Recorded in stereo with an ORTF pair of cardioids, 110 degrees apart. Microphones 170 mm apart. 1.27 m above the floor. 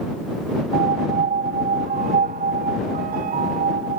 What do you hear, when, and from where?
0.7 s a piano: 60° right